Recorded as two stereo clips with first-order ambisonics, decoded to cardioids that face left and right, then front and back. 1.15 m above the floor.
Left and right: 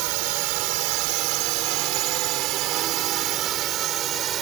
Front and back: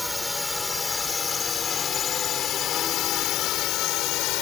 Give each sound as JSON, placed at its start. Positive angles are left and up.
{"t": 0.0, "sound": "a drone", "azimuth_deg": -85}